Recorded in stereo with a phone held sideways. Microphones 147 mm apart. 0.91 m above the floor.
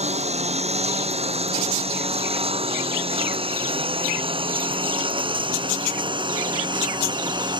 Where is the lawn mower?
55° right (ahead or behind); by 7.6 s 35° right (ahead or behind).